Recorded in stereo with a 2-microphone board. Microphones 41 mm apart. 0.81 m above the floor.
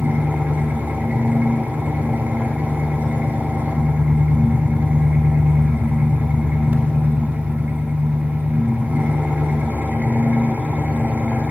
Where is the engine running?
45° right (ahead or behind), 1.6 m.